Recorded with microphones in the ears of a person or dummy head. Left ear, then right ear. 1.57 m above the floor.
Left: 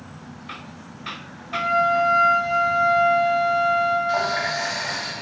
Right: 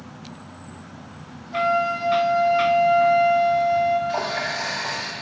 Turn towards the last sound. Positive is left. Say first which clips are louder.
# left 3 dB
turn(degrees=65)  # may be behind; listen again after turning